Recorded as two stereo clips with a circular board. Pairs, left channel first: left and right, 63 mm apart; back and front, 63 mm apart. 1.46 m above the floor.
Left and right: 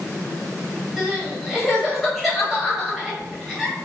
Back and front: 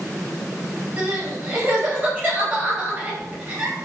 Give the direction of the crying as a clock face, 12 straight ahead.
12 o'clock.